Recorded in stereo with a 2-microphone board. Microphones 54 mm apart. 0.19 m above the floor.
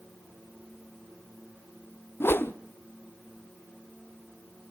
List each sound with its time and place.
2.2 s a whoosh: 50° left (ahead or behind), 0.7 m